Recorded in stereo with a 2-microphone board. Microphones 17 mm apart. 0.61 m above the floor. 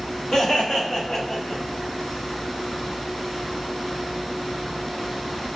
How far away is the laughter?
About 1.5 m.